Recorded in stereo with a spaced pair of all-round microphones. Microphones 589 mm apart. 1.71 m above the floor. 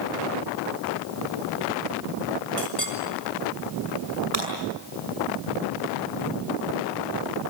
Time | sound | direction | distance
2.6 | a clink | 60° left (ahead or behind) | 4.5 m
4.3 | breaking glass | 80° right | 6.5 m